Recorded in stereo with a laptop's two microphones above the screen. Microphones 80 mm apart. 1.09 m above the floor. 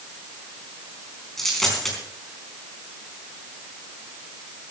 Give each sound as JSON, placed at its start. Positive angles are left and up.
{"t": 1.4, "sound": "a dropped coin", "side_deg": 5, "distance_m": 4.0}